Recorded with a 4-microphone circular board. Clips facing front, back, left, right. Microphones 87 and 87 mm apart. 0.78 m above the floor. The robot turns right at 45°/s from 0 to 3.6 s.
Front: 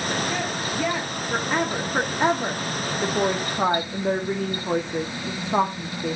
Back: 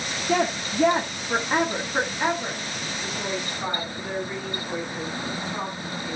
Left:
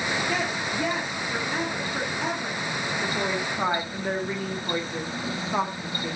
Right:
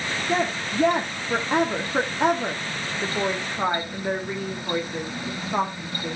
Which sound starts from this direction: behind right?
A woman speaking, at 0.3 s.